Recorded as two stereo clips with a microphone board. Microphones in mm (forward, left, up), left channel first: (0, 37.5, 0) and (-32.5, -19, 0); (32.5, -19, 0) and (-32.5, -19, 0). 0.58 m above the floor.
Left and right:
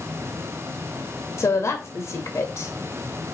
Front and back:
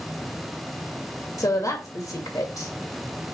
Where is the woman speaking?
20° left, 2.5 m.